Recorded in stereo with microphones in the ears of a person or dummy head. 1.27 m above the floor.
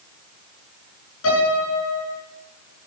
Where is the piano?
80° left, 9 m.